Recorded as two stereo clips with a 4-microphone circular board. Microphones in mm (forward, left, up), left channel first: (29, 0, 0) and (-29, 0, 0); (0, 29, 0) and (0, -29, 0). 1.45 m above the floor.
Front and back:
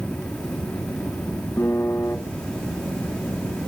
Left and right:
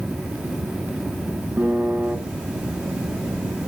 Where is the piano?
40° right, 1.9 m.